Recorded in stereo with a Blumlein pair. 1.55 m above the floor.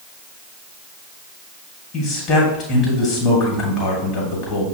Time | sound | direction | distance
1.9 | a man speaking | 30° left | 1.7 m